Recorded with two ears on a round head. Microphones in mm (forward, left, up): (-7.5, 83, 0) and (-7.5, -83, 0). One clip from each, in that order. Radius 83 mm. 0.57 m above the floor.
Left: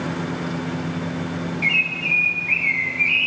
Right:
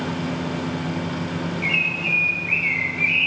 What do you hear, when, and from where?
1.6 s a bird: 20° left (ahead or behind), 0.7 m